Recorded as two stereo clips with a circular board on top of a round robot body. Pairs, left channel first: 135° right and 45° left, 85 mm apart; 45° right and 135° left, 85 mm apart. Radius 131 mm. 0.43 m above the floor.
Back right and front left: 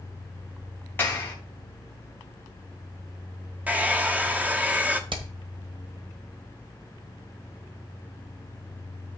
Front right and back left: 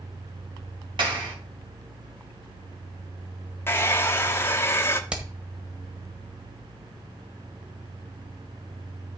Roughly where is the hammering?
Ahead left.